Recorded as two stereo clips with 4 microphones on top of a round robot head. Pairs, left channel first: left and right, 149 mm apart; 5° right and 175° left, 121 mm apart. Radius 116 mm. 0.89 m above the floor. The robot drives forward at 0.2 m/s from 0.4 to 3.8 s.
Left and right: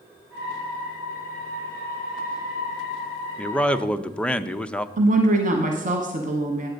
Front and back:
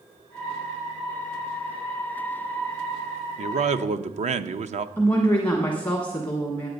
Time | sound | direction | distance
3.4 | a man speaking | 170° left | 0.6 m
5.0 | a woman speaking | 85° right | 1.2 m